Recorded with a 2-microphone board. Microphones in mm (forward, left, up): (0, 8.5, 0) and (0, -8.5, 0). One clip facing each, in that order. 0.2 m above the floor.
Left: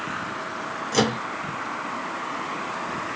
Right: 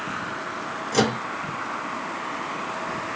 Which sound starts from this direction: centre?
A microwave, at 0.9 s.